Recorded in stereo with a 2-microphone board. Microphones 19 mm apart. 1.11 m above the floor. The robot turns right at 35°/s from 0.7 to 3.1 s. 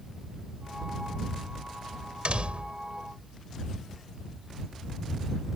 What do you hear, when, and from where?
2.2 s a door slam: 65° right (ahead or behind); by 2.8 s 85° right